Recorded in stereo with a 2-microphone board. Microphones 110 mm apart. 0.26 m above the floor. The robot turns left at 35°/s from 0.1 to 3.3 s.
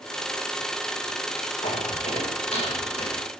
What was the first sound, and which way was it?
Footsteps, 80° left.